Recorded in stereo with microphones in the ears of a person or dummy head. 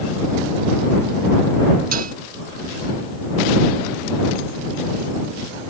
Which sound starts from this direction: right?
Dishes clattering, at 1.9 s.